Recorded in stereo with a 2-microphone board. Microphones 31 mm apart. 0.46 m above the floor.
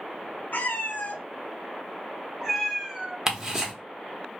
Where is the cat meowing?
80° left, 1.0 m; by 3.2 s 10° right (ahead or behind), 1.3 m.